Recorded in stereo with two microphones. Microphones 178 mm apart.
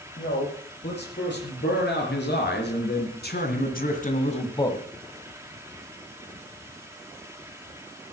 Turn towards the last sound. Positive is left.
turn(degrees=15)  # may be behind; listen again after turning